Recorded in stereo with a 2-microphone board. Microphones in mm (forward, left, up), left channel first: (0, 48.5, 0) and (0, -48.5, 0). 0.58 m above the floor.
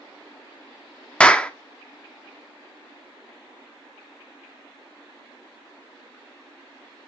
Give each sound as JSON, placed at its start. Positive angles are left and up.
{"t": 1.2, "sound": "a clap", "side_deg": 10, "distance_m": 0.7}